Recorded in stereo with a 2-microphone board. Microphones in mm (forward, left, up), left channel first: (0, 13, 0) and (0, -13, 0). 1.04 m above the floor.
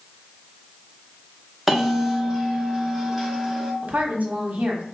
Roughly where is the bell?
Centre.